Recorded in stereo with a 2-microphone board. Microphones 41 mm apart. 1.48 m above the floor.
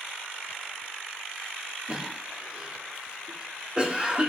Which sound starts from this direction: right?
A cough, at 1.9 s.